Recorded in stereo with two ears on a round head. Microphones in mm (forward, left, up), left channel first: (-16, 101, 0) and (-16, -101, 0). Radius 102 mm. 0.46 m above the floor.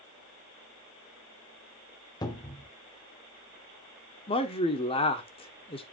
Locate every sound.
2.2 s a cupboard door: 20° left (ahead or behind), 1.0 m
4.3 s a man speaking: 25° left (ahead or behind), 1.3 m